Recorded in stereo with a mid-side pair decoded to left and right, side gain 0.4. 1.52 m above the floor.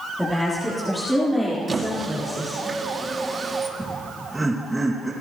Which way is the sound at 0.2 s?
Straight ahead.